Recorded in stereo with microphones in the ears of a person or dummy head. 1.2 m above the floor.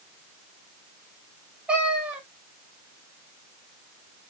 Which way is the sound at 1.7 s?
5° right (ahead or behind).